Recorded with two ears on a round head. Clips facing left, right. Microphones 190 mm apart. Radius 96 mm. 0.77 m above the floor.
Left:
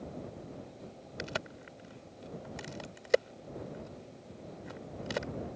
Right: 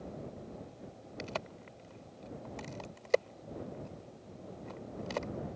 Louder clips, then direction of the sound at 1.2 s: Left 1 dB; 15° left (ahead or behind).